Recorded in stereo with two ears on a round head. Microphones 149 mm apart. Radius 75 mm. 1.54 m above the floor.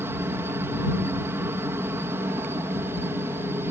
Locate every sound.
0.0 s a helicopter: 15° right (ahead or behind)